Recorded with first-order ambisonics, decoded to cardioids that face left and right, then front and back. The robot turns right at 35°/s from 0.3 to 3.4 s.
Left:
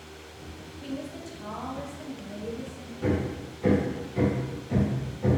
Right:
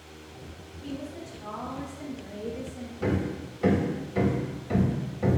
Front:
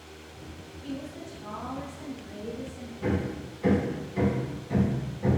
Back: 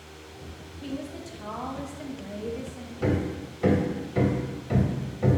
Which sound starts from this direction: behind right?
Hammering, at 3.0 s.